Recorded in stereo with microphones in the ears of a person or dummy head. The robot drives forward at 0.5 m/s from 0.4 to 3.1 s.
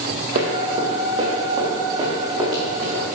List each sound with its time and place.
0.3 s running footsteps: 45° right (ahead or behind), 2.5 m; by 3.1 s 10° right (ahead or behind), 6.5 m